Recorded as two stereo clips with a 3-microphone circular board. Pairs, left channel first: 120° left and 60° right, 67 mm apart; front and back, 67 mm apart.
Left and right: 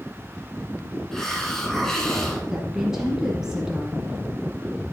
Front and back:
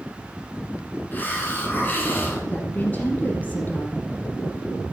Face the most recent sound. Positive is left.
turn(degrees=10)